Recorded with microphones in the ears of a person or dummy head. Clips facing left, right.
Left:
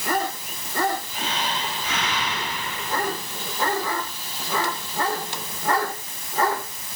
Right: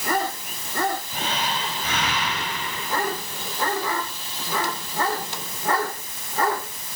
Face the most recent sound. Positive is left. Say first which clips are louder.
# right 1 dB
turn(degrees=-50)  # may be behind; listen again after turning